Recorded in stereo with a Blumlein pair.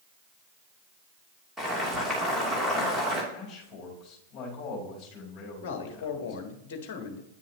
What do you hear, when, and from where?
1.6 s boiling: straight ahead, 3 m
3.3 s a man speaking: 30° left, 4.5 m
5.6 s a man speaking: 45° left, 1.4 m